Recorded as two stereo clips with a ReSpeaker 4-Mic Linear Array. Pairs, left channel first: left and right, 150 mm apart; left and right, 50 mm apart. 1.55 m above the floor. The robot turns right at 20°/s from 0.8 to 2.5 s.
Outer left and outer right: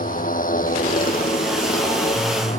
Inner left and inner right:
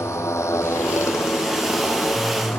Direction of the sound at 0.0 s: 80° left.